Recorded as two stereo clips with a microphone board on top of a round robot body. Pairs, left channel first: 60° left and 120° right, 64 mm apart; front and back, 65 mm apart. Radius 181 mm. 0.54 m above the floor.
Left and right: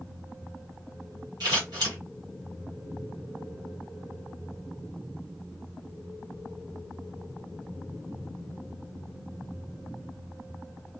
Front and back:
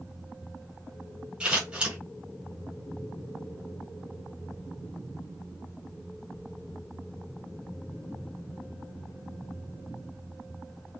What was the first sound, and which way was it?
Scissors, 105° right.